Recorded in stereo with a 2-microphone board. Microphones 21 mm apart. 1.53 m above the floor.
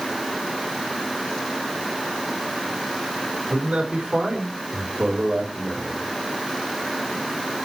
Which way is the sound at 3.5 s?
65° right (ahead or behind).